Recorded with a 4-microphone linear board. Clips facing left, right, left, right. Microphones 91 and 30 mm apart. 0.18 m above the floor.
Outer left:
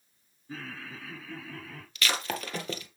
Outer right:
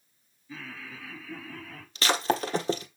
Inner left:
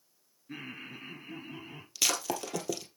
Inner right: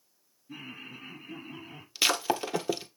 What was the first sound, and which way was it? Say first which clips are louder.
Laughter: outer left 1 dB, even; 40° left (ahead or behind).